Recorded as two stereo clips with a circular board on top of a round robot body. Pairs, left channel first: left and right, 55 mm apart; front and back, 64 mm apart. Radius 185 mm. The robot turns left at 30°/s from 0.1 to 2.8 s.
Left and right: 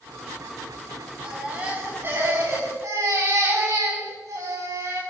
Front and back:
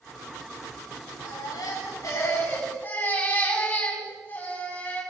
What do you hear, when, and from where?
1.2 s a baby crying: 15° right, 8.5 m; by 5.0 s 65° right, 8.5 m